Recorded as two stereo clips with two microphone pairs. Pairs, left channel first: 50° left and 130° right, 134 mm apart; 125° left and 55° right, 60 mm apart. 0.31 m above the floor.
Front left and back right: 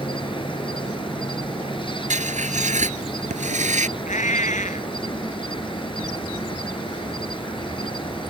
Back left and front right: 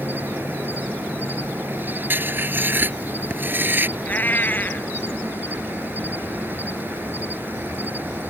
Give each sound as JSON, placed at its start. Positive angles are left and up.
{"t": 0.0, "sound": "an insect", "azimuth_deg": 0}
{"t": 2.1, "sound": "writing", "azimuth_deg": -110}
{"t": 4.0, "sound": "a cat meowing", "azimuth_deg": 70}